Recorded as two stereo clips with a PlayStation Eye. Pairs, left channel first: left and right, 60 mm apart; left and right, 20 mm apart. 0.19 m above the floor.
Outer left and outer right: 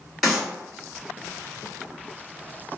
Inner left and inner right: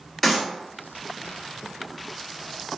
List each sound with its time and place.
0.2 s a clap: centre (ahead or behind), 2.0 m